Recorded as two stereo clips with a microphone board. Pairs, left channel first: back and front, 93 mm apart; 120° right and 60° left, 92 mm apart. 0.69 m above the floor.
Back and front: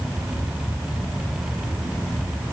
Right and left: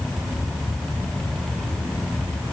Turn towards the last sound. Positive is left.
No sound to turn to.